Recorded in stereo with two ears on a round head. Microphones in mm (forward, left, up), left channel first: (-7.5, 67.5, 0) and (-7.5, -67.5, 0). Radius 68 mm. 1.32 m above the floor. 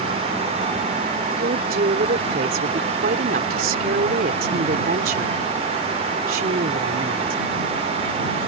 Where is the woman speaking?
70° right (ahead or behind).